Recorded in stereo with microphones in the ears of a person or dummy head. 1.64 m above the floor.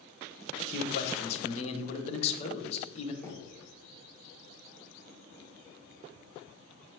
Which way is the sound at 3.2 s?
15° left (ahead or behind).